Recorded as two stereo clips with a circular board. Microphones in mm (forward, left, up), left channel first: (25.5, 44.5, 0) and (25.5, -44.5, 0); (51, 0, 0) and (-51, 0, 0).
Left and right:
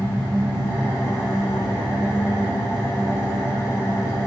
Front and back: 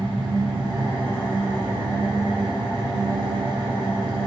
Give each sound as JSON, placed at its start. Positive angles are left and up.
{"t": 0.0, "sound": "an engine running", "azimuth_deg": 140, "distance_m": 1.4}